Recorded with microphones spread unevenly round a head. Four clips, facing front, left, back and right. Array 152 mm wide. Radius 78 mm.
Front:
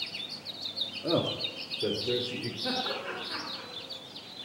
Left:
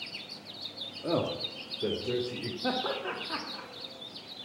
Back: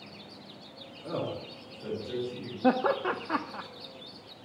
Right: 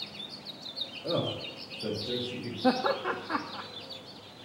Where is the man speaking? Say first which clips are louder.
Left 1 dB, front 5 dB; 40° left, 2 m.